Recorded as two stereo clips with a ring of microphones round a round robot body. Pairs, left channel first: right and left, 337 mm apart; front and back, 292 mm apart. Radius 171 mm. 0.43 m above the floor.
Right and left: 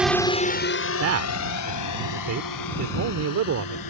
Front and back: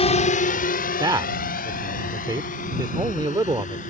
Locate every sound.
0.0 s a drone: 10° left; by 3.9 s 70° right
1.0 s a man speaking: 110° left